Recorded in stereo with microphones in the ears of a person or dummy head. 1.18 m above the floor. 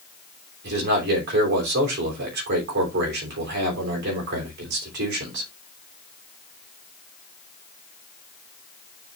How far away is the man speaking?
About 3.5 m.